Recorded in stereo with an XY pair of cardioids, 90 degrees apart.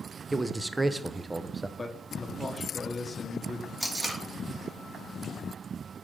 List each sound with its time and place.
0.3 s a man speaking: 20° right, 0.6 m
1.8 s a man speaking: 20° left, 1.4 m
3.8 s tape being pulled: 10° right, 2 m